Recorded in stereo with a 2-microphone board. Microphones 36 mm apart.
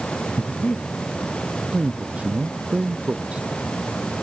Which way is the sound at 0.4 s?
30° left (ahead or behind).